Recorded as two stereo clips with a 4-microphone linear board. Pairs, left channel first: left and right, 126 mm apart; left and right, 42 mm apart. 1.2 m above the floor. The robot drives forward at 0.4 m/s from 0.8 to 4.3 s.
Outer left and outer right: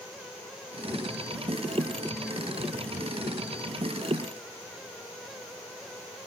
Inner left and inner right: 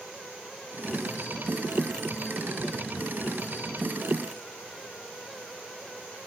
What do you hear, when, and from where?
Only background noise.